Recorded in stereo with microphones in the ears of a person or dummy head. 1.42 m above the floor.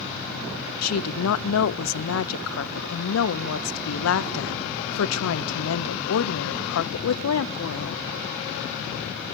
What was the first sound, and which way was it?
A woman speaking, 85° left.